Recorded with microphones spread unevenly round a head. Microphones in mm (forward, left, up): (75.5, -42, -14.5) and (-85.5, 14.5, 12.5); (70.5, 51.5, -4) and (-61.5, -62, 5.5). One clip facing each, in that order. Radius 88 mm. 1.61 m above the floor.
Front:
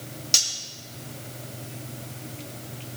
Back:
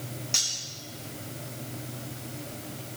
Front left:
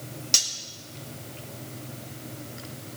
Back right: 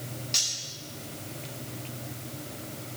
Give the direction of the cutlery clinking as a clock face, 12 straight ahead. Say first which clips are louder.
Front 3 dB, front left 3 dB; 11 o'clock.